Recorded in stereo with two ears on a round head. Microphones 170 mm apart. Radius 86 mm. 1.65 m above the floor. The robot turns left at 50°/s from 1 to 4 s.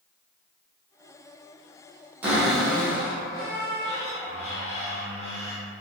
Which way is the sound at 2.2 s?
165° right.